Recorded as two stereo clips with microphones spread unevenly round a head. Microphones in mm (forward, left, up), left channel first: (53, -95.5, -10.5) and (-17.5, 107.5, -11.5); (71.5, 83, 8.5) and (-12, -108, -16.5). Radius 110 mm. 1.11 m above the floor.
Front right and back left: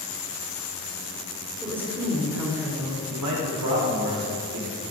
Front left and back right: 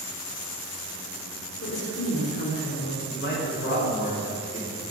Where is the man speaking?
115° left, 4 m.